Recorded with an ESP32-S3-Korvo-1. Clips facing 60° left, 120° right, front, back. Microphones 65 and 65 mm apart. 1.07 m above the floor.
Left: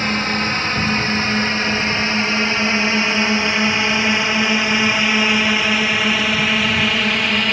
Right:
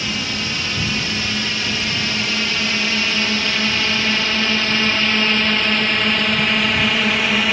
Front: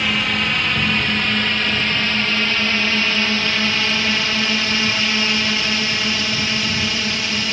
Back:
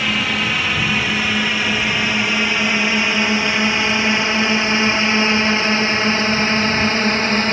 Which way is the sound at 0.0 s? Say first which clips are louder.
Left 5 dB, back 1 dB; 95° left.